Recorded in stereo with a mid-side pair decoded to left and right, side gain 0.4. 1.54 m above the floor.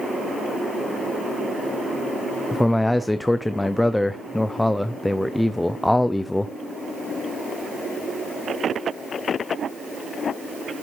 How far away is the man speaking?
About 0.5 m.